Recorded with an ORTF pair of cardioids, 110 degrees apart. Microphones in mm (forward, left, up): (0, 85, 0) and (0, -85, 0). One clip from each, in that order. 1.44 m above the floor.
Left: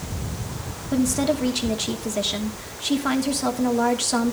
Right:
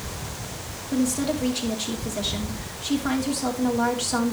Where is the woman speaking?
25° left, 2.5 m.